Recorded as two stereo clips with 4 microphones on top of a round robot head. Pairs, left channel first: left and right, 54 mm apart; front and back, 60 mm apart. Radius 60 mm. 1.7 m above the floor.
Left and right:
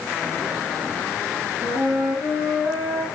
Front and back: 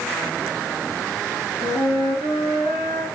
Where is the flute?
30° right, 5.5 m.